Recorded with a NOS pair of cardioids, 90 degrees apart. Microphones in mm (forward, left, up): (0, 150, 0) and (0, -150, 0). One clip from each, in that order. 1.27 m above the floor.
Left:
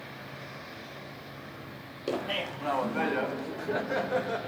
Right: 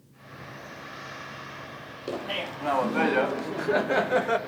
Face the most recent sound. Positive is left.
turn(degrees=-45)